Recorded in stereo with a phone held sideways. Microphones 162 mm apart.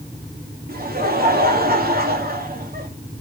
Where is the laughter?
65° right (ahead or behind), 3 m.